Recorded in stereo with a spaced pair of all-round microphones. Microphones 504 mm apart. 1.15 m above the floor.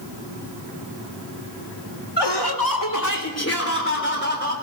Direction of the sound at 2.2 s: 55° left (ahead or behind).